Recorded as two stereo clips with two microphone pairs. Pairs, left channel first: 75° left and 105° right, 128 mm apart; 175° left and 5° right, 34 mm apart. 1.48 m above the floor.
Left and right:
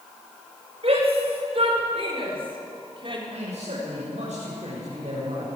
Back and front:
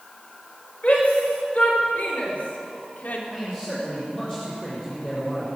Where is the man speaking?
120° right, 7 m.